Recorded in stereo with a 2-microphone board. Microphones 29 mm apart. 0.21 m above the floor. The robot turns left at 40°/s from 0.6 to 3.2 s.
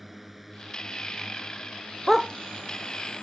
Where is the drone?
5° right (ahead or behind); by 3.2 s 55° left (ahead or behind).